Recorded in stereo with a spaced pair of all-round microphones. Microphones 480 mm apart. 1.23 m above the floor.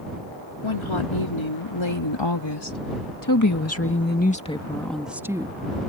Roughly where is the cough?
I don't hear a cough.